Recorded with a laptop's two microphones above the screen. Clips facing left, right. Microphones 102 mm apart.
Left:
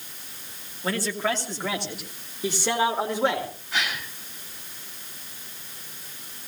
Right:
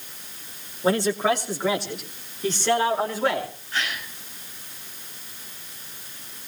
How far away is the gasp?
About 8 m.